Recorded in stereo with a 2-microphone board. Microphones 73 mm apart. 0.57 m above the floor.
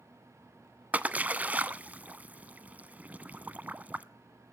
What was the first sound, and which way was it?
A splash, 20° right (ahead or behind).